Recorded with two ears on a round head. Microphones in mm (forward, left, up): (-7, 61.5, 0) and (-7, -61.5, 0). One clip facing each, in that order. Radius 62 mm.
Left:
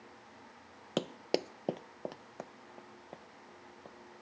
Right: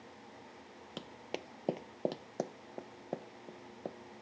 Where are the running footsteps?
70° left (ahead or behind); by 4.0 s 55° right (ahead or behind).